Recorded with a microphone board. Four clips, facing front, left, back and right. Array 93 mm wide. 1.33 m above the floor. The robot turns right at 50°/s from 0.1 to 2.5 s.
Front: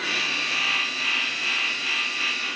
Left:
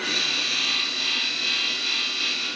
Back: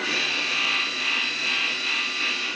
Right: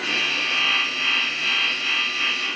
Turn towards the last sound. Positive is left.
No sound to turn to.